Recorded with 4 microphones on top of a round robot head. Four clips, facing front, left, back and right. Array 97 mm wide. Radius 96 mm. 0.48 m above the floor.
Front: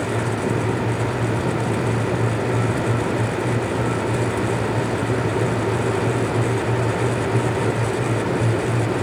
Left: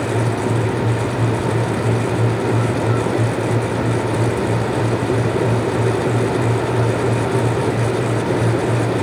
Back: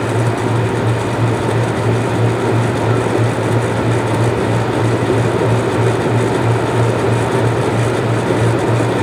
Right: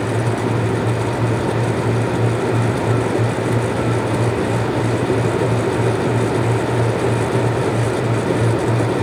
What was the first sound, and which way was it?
Only background noise.